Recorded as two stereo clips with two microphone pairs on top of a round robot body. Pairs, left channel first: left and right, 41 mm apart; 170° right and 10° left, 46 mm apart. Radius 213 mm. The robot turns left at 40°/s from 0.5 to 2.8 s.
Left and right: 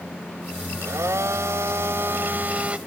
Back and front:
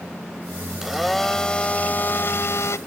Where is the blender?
70° right; by 2.8 s 150° right.